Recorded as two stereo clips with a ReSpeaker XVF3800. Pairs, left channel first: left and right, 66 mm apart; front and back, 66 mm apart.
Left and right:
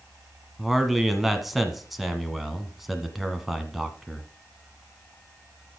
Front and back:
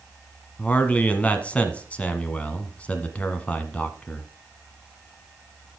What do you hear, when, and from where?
0.6 s a man speaking: 5° right, 1.3 m